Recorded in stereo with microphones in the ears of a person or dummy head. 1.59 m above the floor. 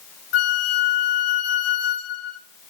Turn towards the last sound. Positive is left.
turn(degrees=75)  # may be behind; listen again after turning